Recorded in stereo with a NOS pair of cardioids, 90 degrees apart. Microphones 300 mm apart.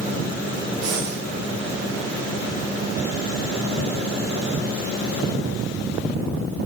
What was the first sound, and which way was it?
Breathing, 60° right.